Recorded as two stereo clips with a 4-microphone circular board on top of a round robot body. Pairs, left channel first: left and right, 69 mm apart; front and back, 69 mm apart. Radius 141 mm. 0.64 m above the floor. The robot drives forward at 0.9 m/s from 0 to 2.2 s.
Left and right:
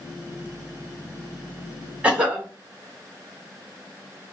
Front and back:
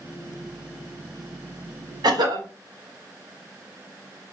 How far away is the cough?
About 1.9 m.